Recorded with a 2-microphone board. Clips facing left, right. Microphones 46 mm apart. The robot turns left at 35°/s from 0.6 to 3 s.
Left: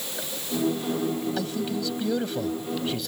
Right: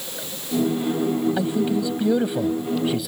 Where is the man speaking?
20° right (ahead or behind); by 3.1 s 5° right (ahead or behind).